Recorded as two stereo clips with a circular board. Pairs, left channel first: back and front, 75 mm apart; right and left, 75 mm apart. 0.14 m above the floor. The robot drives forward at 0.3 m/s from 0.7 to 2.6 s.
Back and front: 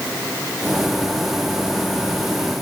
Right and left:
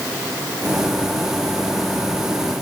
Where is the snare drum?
No snare drum in this recording.